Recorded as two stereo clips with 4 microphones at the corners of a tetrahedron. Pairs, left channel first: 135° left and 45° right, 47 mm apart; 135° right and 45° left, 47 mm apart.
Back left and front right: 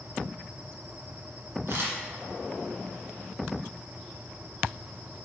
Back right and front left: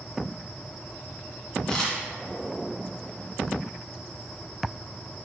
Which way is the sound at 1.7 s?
60° right.